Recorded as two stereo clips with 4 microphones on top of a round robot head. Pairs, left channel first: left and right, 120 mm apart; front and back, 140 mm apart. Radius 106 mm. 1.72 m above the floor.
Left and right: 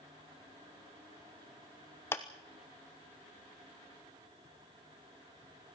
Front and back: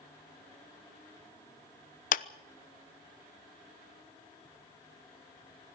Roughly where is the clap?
Ahead.